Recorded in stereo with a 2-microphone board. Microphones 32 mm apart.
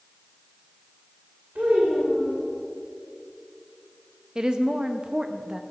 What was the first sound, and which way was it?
A child speaking, 75° right (ahead or behind).